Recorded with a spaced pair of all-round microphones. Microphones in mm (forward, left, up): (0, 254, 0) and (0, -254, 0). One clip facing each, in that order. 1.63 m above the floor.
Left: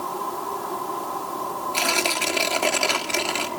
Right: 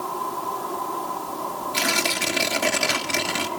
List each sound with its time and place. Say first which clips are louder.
1.7 s tearing paper: even; 40° right (ahead or behind), 1.4 m